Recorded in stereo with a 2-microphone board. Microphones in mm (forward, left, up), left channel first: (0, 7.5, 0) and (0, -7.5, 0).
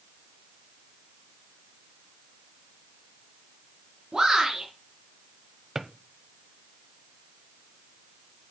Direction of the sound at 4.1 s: 70° right (ahead or behind).